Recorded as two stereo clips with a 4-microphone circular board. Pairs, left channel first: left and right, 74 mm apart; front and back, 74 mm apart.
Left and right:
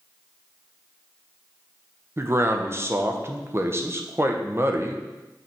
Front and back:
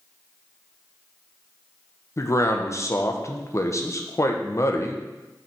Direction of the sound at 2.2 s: 40° right.